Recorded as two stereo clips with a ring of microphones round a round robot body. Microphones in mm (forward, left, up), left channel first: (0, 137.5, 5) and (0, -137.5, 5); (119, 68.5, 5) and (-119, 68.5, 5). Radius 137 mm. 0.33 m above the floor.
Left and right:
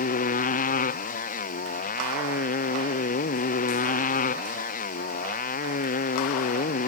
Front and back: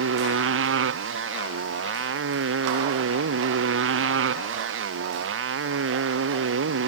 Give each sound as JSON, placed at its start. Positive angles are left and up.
{"t": 0.0, "sound": "a motorcycle", "azimuth_deg": 150}